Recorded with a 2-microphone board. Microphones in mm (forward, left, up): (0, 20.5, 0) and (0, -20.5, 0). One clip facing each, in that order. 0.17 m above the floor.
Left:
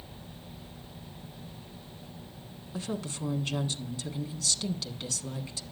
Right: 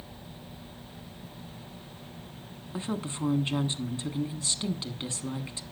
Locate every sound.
2.7 s a woman speaking: 25° right (ahead or behind), 1.3 m